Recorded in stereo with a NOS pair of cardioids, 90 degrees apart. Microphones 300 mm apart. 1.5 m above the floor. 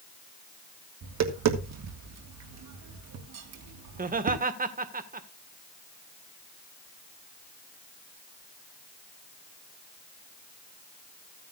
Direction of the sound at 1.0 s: 60° right.